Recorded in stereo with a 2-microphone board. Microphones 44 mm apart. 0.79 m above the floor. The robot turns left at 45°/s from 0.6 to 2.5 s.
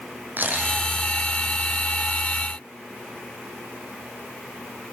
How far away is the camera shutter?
About 7.5 m.